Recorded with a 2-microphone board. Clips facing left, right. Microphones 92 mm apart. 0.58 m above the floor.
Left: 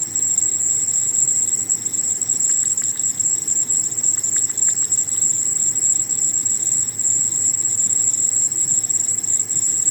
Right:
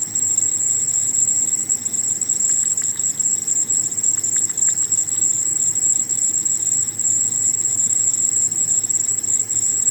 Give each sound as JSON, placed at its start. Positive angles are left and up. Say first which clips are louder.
{"t": 0.0, "sound": "an insect", "louder": "even", "side_deg": 55, "distance_m": 2.5}